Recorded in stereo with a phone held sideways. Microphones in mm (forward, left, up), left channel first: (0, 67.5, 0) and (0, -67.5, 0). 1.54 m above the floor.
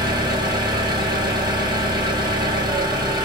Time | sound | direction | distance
0.0 | an engine running | 30° right (ahead or behind) | 0.9 m